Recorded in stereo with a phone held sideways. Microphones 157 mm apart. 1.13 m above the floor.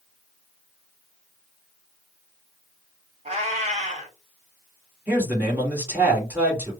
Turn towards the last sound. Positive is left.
turn(degrees=-15)  # may be behind; listen again after turning